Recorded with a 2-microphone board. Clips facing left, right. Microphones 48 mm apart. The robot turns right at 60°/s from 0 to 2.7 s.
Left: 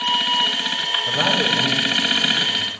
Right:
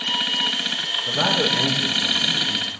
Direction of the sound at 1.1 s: 165° left.